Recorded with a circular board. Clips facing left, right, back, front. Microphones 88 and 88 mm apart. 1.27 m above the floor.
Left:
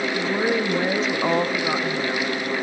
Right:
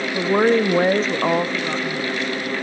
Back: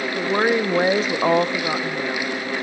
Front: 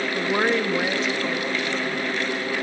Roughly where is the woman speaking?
Right.